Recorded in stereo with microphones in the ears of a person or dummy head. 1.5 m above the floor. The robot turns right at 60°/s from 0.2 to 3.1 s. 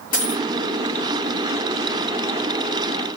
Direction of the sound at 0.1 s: 55° left (ahead or behind).